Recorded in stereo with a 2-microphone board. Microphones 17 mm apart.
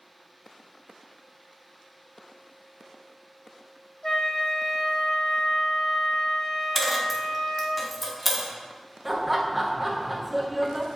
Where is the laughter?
10° right (ahead or behind), 0.8 m.